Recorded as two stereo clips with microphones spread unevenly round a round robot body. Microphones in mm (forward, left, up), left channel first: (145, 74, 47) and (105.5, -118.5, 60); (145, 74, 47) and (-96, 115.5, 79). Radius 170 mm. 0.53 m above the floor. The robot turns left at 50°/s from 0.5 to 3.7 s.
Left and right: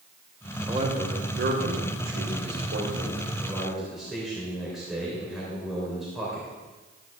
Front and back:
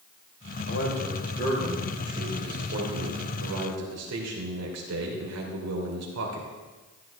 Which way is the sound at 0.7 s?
40° right.